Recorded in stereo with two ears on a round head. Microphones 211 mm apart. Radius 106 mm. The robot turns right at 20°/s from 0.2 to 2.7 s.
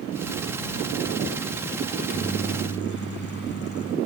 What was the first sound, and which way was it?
A microwave, 35° left (ahead or behind).